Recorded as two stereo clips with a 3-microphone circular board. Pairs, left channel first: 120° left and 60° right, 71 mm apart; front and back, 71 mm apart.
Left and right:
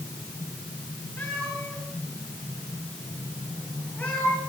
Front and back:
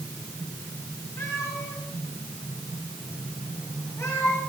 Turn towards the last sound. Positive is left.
turn(degrees=50)